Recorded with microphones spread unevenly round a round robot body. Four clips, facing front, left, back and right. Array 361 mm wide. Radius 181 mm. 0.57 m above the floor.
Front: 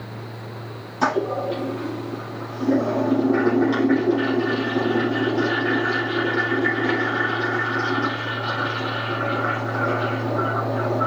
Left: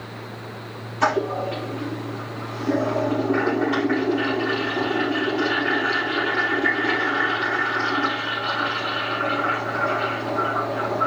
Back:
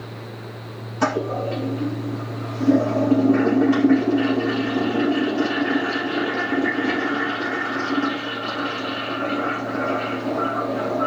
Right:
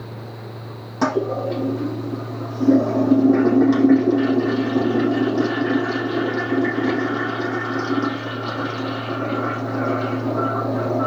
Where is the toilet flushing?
100° right, 4 m.